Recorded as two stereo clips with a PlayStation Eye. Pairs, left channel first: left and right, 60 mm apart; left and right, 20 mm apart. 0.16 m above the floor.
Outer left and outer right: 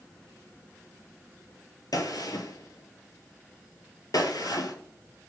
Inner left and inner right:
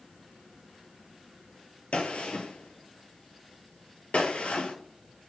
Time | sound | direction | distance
1.9 | a gunshot | 80° left | 0.7 m